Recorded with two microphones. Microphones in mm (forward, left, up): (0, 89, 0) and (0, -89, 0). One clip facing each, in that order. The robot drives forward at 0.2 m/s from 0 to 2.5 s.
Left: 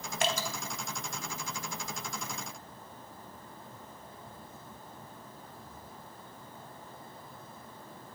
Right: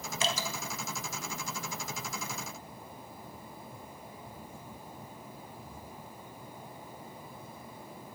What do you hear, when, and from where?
0.2 s dripping: 60° left (ahead or behind), 0.5 m